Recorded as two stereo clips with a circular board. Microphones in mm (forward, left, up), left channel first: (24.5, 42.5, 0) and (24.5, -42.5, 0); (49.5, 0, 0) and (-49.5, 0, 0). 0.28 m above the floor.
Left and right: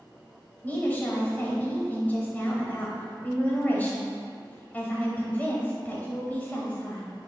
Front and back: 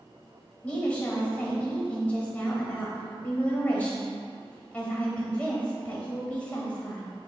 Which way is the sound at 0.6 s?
55° left.